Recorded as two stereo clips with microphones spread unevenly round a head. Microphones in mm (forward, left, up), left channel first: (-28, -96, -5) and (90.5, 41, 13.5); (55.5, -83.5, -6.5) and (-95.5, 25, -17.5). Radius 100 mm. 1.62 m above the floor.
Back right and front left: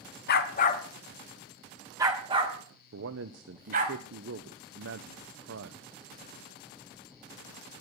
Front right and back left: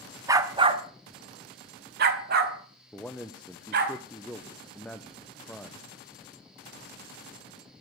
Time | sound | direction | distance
0.3 | a dog barking | 145° right | 1.4 m
2.9 | a man speaking | 50° left | 0.8 m